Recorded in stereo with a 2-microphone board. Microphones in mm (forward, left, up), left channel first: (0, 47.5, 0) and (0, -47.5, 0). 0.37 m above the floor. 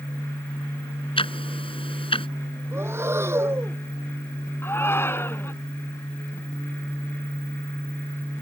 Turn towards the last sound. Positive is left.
turn(degrees=25)  # may be behind; listen again after turning